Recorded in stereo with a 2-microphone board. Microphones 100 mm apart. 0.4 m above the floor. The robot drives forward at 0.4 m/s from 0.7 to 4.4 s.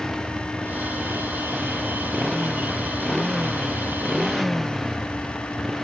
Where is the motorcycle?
Centre (ahead or behind).